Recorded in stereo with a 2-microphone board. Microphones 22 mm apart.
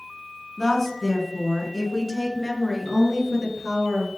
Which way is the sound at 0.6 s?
15° left (ahead or behind).